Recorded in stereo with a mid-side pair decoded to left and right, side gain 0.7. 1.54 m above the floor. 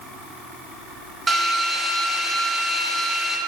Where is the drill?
20° right, 6.5 m.